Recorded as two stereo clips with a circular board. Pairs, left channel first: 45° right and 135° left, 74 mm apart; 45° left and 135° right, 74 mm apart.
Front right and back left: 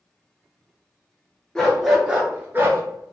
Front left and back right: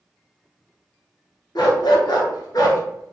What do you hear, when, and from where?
1.6 s a dog barking: 35° left, 0.9 m; by 2.8 s 80° left, 0.8 m